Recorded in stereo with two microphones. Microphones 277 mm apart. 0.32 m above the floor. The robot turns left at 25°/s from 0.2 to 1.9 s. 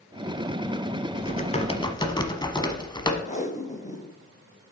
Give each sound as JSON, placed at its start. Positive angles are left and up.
{"t": 1.2, "sound": "typing on a keyboard", "side_deg": 35, "distance_m": 0.9}
{"t": 3.2, "sound": "tape being pulled", "side_deg": 30, "distance_m": 0.9}